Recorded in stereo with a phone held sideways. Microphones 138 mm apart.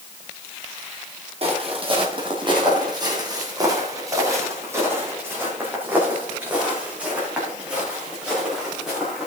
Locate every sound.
1.4 s footsteps: 45° right (ahead or behind), 2.5 m; by 9.3 s 5° right (ahead or behind), 5.5 m